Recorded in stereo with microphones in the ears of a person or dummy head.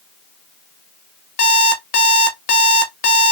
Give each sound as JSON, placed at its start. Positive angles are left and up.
{"t": 1.4, "sound": "an alarm clock", "side_deg": 40, "distance_m": 0.7}